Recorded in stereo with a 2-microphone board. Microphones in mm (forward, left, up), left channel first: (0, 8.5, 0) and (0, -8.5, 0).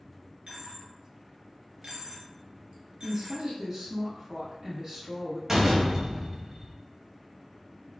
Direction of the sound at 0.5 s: 75° right (ahead or behind).